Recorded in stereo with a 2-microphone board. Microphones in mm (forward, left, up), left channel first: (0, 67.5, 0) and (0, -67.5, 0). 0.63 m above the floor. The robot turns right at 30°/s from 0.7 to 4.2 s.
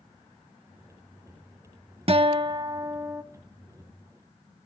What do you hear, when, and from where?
2.1 s a guitar: 55° right, 0.7 m; by 3.2 s 20° right, 0.7 m